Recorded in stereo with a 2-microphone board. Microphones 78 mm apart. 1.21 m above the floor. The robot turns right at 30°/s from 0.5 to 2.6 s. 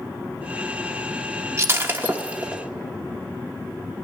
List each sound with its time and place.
1.6 s breaking glass: 35° right (ahead or behind), 1.2 m; by 2.6 s 10° right (ahead or behind), 1.2 m